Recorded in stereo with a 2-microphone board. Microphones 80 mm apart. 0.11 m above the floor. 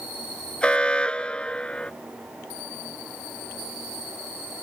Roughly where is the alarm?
Centre.